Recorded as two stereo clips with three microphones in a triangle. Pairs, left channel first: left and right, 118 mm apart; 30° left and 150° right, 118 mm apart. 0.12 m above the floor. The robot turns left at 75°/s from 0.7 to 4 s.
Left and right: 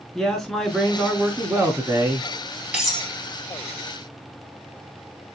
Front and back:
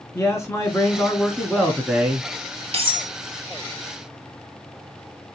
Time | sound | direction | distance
0.1 | a man speaking | 10° left | 1.1 m
2.7 | cutlery clinking | 170° right | 1.7 m